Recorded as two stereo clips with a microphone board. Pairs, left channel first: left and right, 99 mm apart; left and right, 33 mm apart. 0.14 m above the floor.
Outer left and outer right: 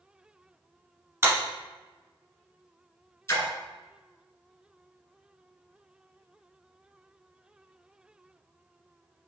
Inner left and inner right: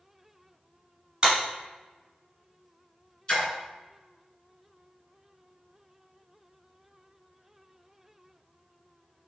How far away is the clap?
About 1.8 m.